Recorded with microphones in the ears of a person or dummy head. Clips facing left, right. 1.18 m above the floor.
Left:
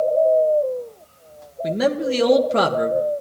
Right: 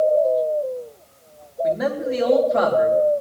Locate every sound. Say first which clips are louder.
1.6 s a man speaking: left 2 dB; 35° left (ahead or behind), 1.2 m